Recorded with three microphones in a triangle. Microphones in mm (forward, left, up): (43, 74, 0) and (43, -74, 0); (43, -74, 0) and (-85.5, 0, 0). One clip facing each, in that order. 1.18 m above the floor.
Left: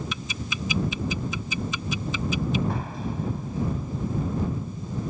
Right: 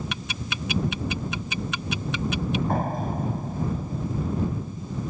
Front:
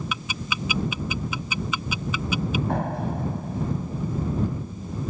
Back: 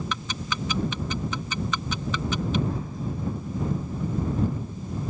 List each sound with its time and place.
0.1 s ticking: 110° right
2.7 s a door slam: 50° right